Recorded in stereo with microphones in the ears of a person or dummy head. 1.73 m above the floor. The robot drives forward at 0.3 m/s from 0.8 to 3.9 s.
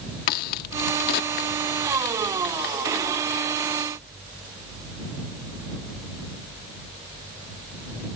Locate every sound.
0.3 s a crack: 50° left (ahead or behind)